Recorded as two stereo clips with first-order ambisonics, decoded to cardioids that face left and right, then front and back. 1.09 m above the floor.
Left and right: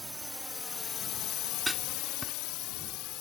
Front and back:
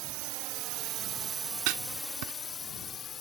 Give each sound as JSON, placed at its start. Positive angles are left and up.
{"t": 0.0, "sound": "a drone", "azimuth_deg": -175}
{"t": 1.7, "sound": "writing", "azimuth_deg": 180}